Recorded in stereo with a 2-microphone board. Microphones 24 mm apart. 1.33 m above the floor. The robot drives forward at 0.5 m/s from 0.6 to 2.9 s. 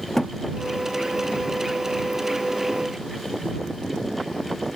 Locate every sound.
0.2 s a thud: 25° left (ahead or behind)